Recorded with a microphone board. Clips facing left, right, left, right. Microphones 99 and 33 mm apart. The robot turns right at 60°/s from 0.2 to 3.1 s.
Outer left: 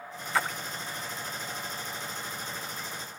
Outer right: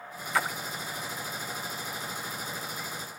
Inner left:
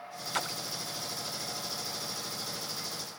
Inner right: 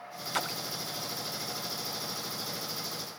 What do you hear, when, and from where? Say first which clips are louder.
0.3 s a splash: even, inner right 1 dB; centre (ahead or behind); by 0.8 s 30° right (ahead or behind)